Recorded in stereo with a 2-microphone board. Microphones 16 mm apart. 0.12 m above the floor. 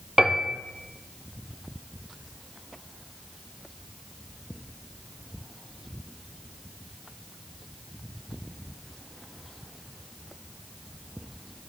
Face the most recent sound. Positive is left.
turn(degrees=-40)  # may be behind; listen again after turning